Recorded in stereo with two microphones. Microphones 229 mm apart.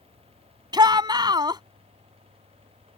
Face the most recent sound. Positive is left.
turn(degrees=-20)  # may be behind; listen again after turning